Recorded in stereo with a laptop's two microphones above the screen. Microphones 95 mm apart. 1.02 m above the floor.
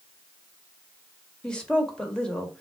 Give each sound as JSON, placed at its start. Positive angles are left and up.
{"t": 1.4, "sound": "a woman speaking", "side_deg": 10, "distance_m": 1.2}